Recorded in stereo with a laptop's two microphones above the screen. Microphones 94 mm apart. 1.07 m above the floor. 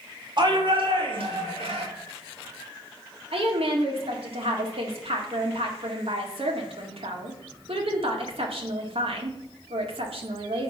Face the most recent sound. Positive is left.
turn(degrees=-75)  # may be behind; listen again after turning